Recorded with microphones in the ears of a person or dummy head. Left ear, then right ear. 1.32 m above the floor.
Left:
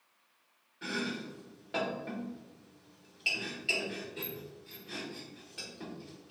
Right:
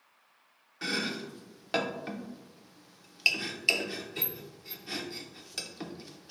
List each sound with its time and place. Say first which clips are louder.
0.8 s chopping: right 4 dB; 55° right (ahead or behind), 0.7 m